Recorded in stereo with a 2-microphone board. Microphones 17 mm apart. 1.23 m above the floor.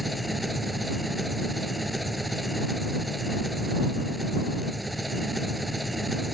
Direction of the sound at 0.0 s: 5° right (ahead or behind).